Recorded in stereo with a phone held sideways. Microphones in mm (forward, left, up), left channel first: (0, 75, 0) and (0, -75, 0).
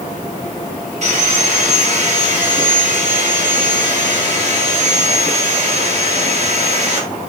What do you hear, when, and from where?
1.0 s sawing: 50° right (ahead or behind), 3.5 m